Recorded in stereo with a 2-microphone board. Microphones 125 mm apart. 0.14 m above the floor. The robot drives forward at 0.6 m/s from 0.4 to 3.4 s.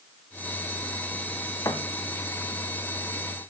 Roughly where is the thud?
Left.